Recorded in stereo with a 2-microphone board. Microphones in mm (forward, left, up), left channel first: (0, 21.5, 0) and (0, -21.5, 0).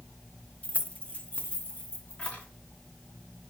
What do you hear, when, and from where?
0.6 s keys jangling: 30° left (ahead or behind), 0.5 m